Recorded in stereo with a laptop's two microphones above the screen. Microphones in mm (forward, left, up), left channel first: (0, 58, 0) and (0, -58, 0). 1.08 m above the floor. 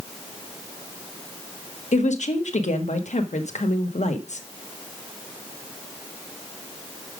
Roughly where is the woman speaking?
Left.